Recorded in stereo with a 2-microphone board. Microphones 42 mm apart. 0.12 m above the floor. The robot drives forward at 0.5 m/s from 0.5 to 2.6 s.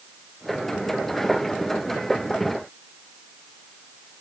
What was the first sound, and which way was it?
Only background noise.